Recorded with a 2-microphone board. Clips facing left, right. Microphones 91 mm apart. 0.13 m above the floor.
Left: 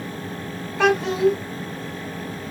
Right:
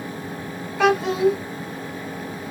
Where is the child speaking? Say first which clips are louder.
Even; 5° right (ahead or behind), 0.6 m.